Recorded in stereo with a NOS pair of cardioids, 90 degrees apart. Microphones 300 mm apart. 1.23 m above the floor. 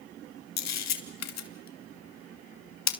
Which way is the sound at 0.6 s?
65° left.